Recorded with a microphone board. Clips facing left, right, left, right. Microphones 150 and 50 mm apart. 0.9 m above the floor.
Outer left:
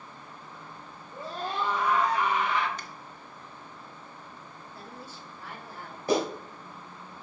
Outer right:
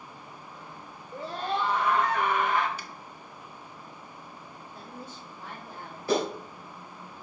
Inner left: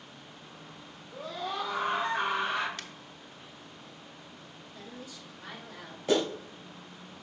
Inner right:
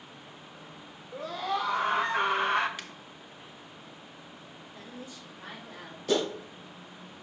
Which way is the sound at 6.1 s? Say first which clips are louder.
Outer left 1 dB, inner left 1 dB; 20° left (ahead or behind).